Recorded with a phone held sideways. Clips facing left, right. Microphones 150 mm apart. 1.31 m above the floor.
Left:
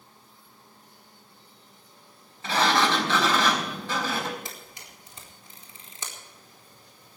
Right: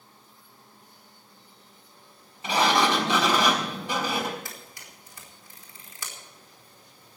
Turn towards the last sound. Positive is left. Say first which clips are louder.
# left 1 dB
turn(degrees=20)  # may be behind; listen again after turning